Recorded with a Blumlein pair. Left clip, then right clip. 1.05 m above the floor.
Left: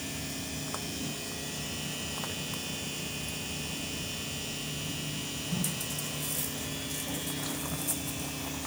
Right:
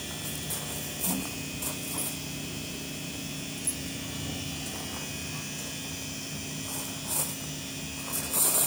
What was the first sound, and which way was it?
Only background noise.